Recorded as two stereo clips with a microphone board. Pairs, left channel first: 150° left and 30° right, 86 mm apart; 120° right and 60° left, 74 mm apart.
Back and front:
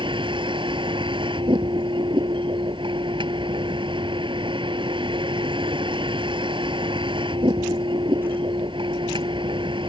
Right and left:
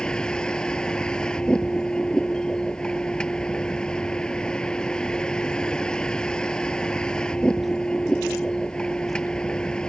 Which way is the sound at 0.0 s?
40° right.